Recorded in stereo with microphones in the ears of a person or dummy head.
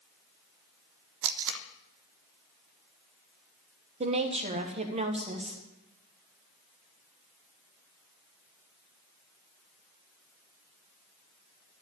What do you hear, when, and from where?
1.2 s tape being pulled: 70° right (ahead or behind), 0.6 m
4.0 s a woman speaking: 40° right (ahead or behind), 1.3 m